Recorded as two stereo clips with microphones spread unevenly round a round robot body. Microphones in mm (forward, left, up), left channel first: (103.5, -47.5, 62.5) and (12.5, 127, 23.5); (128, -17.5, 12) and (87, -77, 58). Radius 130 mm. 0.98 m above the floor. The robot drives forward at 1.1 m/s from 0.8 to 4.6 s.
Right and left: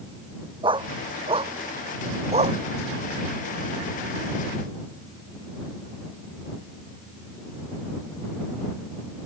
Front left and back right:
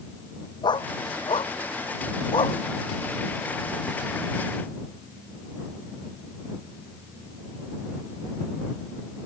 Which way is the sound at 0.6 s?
50° left.